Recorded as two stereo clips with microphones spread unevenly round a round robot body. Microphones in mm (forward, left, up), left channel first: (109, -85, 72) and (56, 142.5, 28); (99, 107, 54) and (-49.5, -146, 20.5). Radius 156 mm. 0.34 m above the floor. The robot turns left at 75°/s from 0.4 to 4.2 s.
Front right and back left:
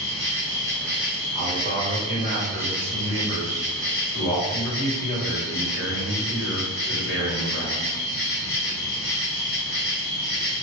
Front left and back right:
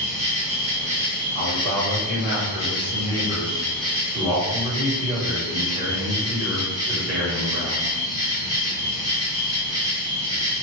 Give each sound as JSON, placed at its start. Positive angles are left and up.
{"t": 0.0, "sound": "an insect", "azimuth_deg": -140, "distance_m": 1.3}
{"t": 1.4, "sound": "a man speaking", "azimuth_deg": 170, "distance_m": 1.6}